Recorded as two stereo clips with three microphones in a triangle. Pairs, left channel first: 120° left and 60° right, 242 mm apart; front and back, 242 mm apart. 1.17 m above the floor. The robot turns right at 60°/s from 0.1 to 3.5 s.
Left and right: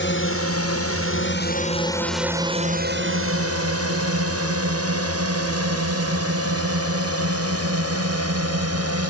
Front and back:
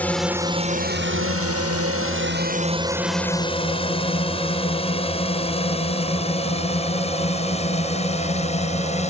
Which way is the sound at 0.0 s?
85° left.